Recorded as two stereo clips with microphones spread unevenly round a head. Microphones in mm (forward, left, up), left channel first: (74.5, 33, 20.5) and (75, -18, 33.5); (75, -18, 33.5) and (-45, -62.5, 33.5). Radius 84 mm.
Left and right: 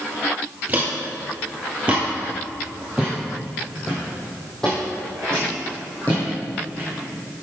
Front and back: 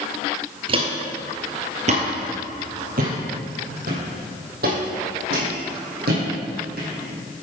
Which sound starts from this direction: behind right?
Footsteps, at 0.7 s.